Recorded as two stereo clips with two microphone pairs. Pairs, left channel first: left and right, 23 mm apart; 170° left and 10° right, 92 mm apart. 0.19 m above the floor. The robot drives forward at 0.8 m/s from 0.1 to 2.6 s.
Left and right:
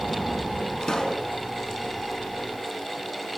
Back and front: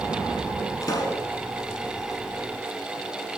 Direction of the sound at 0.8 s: 130° left.